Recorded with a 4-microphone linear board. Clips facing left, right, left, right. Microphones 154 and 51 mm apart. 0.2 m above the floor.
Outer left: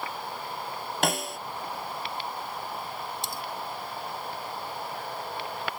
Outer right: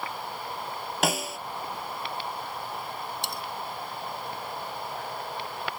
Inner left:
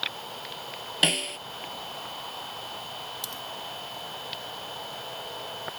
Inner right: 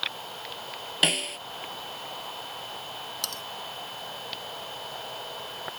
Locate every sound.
1.0 s a snare drum: centre (ahead or behind)
3.2 s cutlery clinking: 65° right (ahead or behind)